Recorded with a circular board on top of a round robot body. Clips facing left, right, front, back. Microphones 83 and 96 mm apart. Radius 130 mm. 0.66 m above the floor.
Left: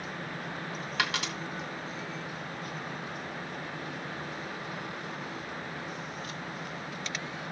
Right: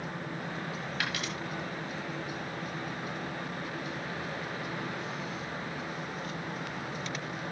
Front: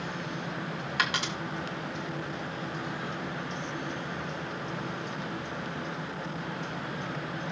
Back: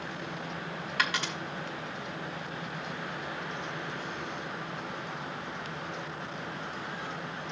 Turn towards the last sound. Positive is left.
turn(degrees=75)